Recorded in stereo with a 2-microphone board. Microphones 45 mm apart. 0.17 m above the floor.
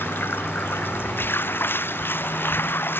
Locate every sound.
0.0 s running water: 50° left (ahead or behind)